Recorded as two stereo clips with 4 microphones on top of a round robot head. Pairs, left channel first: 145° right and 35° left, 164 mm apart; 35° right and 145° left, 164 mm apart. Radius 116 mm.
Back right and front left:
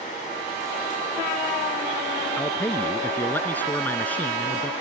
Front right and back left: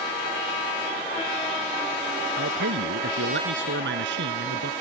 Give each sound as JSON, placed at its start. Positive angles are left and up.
{"t": 2.4, "sound": "a man speaking", "azimuth_deg": 140}